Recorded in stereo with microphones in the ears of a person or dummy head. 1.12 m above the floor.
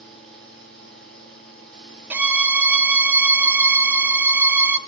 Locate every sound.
0.0 s a fan: centre (ahead or behind), 4.5 m
2.1 s a violin: 10° right (ahead or behind), 0.6 m